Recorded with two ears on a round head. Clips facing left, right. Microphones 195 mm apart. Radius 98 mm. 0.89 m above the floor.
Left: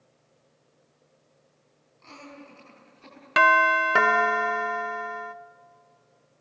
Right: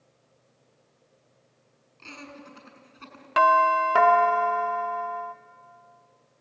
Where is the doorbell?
25° left (ahead or behind), 0.8 m.